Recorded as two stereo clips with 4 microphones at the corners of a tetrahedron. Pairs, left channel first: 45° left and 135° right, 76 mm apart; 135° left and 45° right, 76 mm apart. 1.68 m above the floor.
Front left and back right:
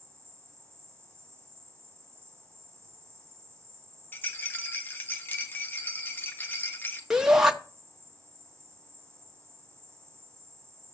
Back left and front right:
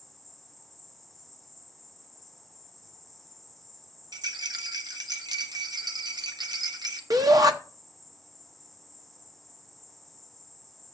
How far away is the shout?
About 0.7 m.